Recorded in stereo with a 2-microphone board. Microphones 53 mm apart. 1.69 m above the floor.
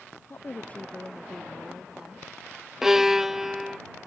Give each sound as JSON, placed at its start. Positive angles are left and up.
{"t": 0.3, "sound": "a woman speaking", "side_deg": 50}
{"t": 2.8, "sound": "a violin", "side_deg": -10}